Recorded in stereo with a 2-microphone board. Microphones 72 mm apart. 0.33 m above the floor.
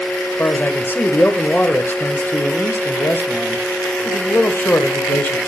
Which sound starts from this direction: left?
A man speaking, at 0.4 s.